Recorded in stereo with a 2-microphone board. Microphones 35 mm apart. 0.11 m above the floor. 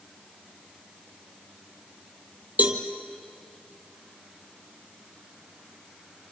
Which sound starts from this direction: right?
A cowbell, at 2.6 s.